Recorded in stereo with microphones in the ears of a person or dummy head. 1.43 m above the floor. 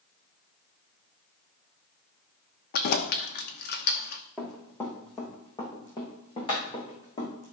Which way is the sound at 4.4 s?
10° left (ahead or behind).